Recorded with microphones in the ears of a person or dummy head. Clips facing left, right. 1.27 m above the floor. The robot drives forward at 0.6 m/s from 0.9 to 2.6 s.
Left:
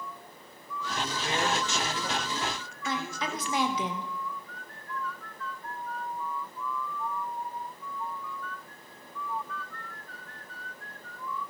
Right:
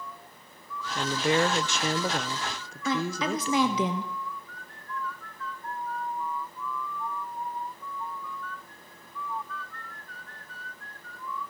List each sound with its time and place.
0.9 s a woman speaking: 45° right (ahead or behind), 0.8 m; by 3.9 s 35° right (ahead or behind), 1.0 m
2.9 s a woman speaking: 70° right (ahead or behind), 1.0 m